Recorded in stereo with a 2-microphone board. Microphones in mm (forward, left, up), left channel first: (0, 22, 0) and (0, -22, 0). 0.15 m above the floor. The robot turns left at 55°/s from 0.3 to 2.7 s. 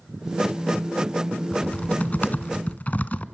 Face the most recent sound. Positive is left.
turn(degrees=75)